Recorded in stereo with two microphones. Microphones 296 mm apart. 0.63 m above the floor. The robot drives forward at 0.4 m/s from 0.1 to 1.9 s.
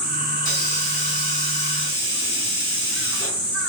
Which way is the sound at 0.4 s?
50° right (ahead or behind).